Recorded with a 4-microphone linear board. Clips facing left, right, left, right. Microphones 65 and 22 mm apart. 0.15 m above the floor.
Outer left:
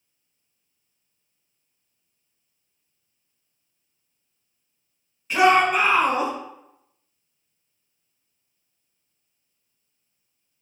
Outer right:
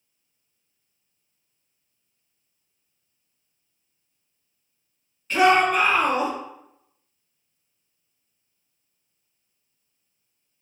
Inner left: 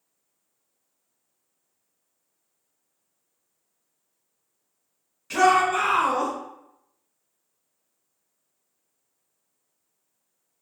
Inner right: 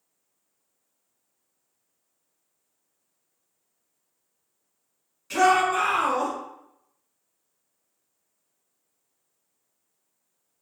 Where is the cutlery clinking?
No cutlery clinking in this recording.